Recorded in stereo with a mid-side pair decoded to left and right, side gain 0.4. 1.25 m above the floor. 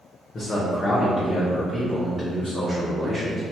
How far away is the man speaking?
About 0.8 m.